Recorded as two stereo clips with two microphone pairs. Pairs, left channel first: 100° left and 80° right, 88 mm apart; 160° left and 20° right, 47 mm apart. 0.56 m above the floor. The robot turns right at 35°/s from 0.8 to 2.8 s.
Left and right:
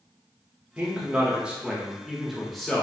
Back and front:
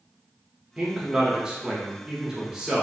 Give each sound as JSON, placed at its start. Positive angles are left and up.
{"t": 0.8, "sound": "a man speaking", "azimuth_deg": -40, "distance_m": 0.9}